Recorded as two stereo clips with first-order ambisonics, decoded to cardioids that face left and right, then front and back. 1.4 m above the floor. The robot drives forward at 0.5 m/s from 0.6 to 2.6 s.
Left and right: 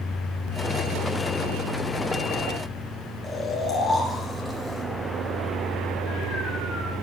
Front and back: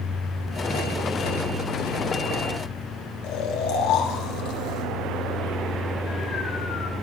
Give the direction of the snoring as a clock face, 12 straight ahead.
12 o'clock.